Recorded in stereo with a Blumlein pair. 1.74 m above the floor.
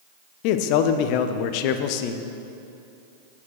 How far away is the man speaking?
About 0.6 m.